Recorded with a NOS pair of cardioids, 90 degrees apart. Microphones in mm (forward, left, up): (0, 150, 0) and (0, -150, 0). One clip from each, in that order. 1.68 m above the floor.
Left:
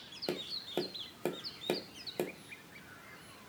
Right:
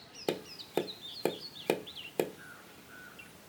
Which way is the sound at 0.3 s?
30° right.